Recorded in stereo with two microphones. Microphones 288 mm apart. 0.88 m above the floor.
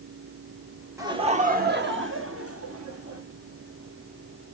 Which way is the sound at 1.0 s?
10° right (ahead or behind).